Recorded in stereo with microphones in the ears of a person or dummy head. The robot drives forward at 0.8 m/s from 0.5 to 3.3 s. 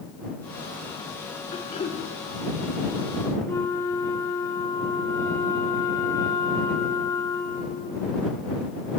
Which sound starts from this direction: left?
Throat clearing, at 1.5 s.